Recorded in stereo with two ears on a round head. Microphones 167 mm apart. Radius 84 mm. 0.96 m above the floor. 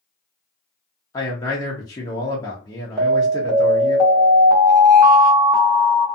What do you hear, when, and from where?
1.1 s a man speaking: 20° left (ahead or behind), 0.7 m
3.0 s an alarm: 20° right (ahead or behind), 0.9 m